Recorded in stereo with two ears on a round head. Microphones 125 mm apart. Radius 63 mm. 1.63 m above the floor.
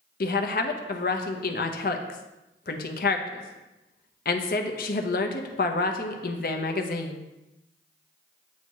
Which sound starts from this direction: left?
A woman speaking, at 0.2 s.